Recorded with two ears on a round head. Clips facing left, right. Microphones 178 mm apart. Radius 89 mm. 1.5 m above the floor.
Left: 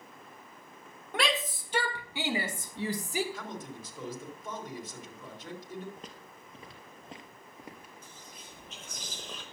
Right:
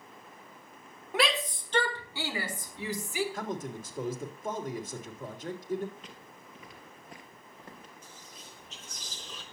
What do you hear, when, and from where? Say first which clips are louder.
1.1 s a shout: right 2 dB; 5° right (ahead or behind), 2.5 m; by 3.2 s 35° left (ahead or behind), 2.5 m
3.3 s a man speaking: right 5 dB; 45° right (ahead or behind), 3 m
6.0 s footsteps: left 1 dB; 40° left (ahead or behind), 1.9 m; by 7.9 s 10° left (ahead or behind), 1.7 m
8.0 s whispering: even; 45° left (ahead or behind), 1.1 m